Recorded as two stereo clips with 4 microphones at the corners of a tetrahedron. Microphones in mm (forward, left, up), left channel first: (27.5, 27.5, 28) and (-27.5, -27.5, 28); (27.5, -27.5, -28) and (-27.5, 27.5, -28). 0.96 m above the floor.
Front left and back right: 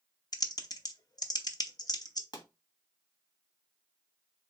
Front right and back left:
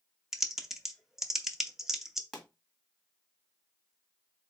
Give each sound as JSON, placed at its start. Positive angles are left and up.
{"t": 0.3, "sound": "typing on a keyboard", "azimuth_deg": 50, "distance_m": 0.6}
{"t": 2.3, "sound": "a pop", "azimuth_deg": 40, "distance_m": 1.5}